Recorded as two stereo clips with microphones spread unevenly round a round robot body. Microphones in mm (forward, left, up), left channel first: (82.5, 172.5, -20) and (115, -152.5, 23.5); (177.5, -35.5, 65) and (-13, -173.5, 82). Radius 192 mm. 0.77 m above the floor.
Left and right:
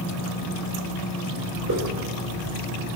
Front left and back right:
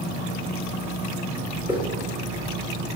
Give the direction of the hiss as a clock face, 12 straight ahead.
2 o'clock.